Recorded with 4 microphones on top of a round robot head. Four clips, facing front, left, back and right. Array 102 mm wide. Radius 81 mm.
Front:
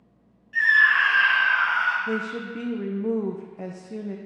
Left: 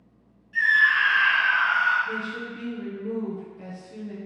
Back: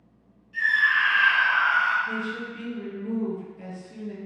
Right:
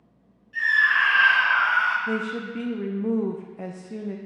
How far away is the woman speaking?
About 0.5 m.